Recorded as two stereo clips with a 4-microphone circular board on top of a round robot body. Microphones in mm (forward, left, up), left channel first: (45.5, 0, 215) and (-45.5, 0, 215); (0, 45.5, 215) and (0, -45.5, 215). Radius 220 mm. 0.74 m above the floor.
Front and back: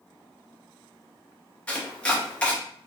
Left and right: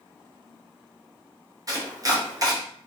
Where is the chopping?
70° right, 1.1 m.